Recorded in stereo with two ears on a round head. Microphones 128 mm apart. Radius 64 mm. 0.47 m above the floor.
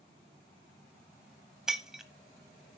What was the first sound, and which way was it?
Breaking glass, 5° right (ahead or behind).